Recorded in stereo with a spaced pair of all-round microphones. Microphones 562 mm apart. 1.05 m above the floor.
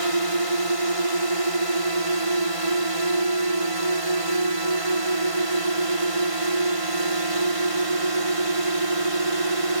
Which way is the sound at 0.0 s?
70° right (ahead or behind).